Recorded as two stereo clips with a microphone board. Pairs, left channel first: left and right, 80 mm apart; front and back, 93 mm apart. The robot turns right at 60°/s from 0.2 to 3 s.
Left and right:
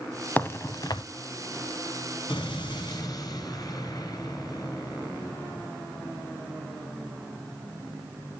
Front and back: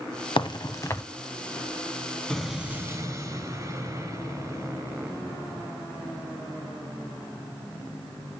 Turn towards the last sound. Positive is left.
turn(degrees=130)